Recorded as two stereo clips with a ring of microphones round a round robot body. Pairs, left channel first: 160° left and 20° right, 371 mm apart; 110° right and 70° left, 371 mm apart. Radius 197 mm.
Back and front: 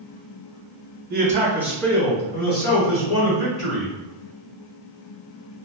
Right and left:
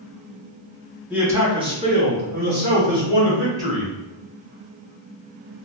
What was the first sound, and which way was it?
A man speaking, 15° right.